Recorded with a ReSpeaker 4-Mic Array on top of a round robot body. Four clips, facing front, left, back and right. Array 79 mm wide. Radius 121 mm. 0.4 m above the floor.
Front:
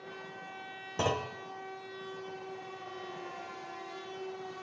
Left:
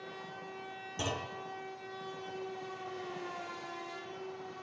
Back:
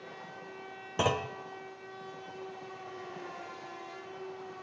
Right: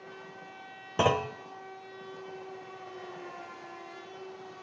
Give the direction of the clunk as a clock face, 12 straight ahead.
3 o'clock.